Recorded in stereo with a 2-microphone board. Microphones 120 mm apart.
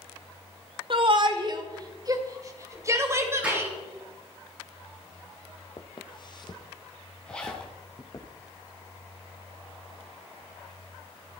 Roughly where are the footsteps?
Left.